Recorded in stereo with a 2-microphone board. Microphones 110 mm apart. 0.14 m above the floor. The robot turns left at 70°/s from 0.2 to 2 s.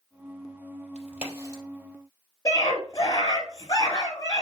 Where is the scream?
30° left (ahead or behind), 2 m.